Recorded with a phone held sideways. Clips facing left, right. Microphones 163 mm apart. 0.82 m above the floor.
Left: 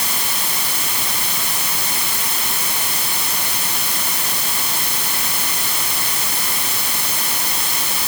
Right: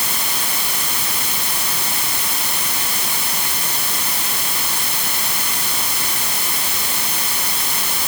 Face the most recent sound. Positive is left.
No sound to turn to.